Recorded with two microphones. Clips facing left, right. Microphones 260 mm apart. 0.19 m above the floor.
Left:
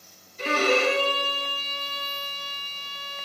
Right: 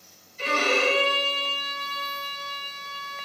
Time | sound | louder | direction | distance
0.4 | a violin | left 2 dB | 60° left (ahead or behind) | 0.9 m